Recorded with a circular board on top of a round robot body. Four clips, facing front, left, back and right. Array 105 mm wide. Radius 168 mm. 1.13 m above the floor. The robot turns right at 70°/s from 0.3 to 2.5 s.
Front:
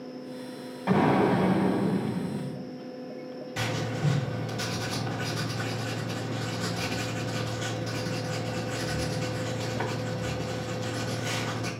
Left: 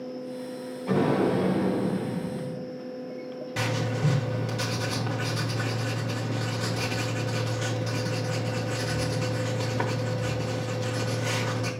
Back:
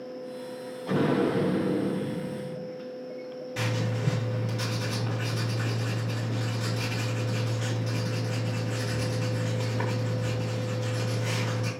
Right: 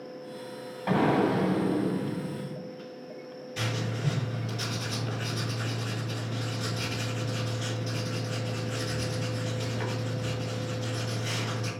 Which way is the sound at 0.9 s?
40° right.